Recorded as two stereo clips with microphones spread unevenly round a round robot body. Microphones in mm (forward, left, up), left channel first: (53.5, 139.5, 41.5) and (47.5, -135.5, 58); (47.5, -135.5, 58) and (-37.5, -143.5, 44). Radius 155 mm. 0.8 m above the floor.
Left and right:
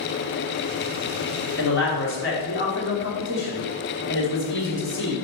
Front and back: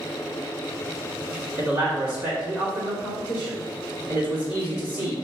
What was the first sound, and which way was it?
A man speaking, 135° left.